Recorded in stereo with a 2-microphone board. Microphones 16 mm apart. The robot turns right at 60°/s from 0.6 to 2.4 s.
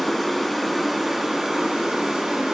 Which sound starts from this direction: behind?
Running water, at 0.0 s.